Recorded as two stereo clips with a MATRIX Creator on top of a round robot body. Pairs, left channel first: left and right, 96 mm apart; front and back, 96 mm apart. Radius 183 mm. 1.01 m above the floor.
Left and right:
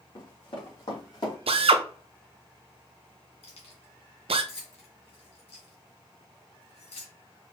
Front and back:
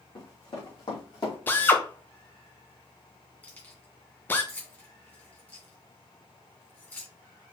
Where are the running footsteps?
45° left, 3.5 m.